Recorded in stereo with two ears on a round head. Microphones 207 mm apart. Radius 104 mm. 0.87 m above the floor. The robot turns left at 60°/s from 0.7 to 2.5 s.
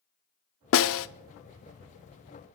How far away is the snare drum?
About 0.7 m.